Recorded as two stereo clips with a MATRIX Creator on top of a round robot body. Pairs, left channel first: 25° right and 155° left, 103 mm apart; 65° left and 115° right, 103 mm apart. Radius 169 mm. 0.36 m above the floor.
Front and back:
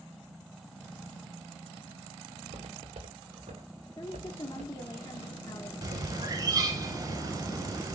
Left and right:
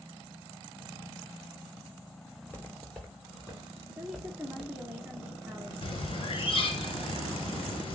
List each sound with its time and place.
2.4 s footsteps: 135° left, 5 m; by 4.9 s 155° left, 4.5 m
4.0 s a woman speaking: 45° right, 1.7 m
5.8 s a bird: 105° left, 2.5 m